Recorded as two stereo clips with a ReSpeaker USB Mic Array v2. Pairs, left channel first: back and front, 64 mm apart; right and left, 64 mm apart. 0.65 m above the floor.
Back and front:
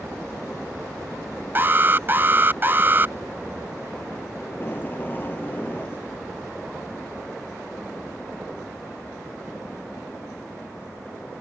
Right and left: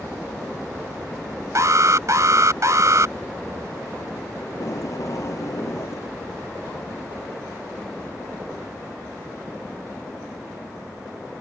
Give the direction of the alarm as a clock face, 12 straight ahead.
10 o'clock.